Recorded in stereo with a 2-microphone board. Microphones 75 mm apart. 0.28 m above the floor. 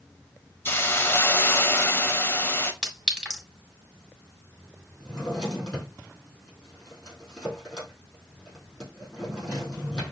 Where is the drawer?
10° left (ahead or behind), 4 m.